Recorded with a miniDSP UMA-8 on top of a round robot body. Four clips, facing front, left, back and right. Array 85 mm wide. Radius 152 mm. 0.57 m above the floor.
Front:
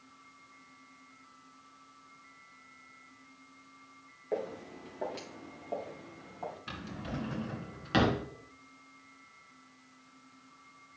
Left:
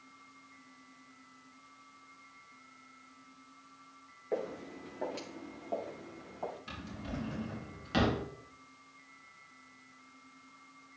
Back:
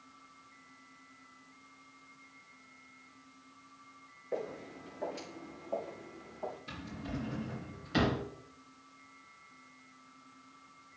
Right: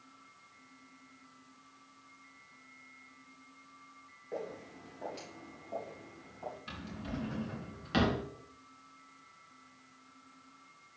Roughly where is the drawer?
Ahead.